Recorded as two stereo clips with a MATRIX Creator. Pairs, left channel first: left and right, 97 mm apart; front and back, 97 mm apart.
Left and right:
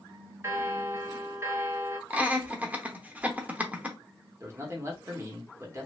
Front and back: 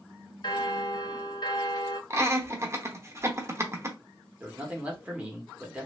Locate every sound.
0.4 s a bell: 30° right, 0.5 m
2.1 s laughter: 150° right, 0.8 m
4.4 s a man speaking: 120° right, 1.1 m